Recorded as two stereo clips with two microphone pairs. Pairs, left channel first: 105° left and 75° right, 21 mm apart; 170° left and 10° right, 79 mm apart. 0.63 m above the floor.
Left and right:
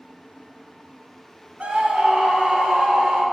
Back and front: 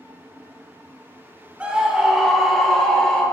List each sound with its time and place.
1.6 s a scream: 85° right, 1.5 m; by 3.2 s 110° right, 2 m